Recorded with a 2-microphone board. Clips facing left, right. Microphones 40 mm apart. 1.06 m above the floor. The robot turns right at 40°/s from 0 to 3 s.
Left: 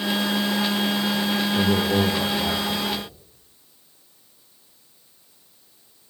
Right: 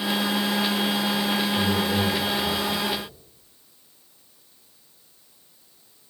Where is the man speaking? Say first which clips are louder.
Left 3 dB; 55° left, 1.0 m; by 3.1 s 110° left, 1.0 m.